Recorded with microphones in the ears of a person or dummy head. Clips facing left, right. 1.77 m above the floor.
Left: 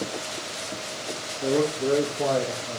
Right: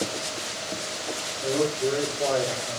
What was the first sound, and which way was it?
A man speaking, 70° left (ahead or behind).